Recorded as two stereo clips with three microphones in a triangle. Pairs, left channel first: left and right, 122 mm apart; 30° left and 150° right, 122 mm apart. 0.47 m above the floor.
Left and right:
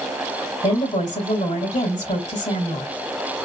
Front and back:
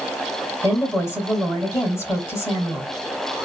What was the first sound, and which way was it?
A woman speaking, 95° left.